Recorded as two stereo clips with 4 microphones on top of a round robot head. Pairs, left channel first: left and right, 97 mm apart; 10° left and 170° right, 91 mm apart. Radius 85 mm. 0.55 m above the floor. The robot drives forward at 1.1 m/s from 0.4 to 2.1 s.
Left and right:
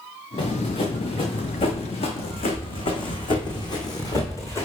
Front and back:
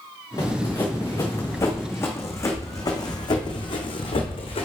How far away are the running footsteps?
About 3 m.